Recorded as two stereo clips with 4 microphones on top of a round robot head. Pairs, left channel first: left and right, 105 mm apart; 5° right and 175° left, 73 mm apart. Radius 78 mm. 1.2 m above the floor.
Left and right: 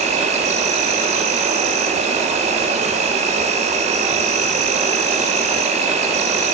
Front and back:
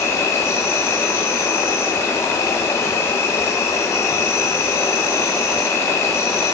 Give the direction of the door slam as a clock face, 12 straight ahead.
I don't hear a door slam.